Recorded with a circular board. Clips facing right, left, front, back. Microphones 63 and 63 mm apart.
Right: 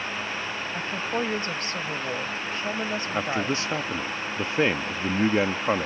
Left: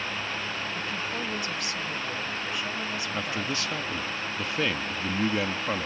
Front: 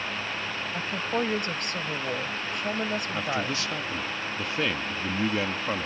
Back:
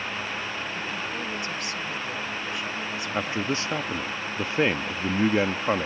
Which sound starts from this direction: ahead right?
A woman speaking, at 0.7 s.